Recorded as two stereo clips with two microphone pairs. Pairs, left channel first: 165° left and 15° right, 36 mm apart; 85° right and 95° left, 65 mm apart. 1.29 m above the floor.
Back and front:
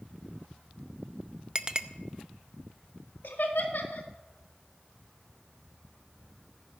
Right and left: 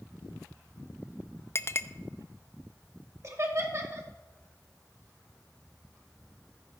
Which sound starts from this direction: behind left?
Laughter, at 3.2 s.